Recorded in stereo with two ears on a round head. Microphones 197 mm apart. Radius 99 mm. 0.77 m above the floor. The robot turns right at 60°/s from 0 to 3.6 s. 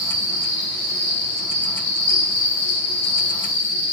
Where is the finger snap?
I don't hear a finger snap.